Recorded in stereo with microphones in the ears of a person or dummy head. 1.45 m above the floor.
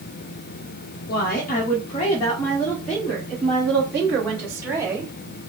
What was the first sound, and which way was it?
A woman speaking, 55° left (ahead or behind).